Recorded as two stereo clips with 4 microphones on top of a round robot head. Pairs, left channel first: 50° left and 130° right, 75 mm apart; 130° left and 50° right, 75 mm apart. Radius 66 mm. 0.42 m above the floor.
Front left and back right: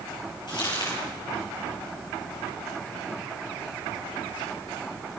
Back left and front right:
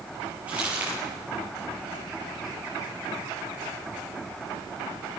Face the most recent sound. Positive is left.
turn(degrees=20)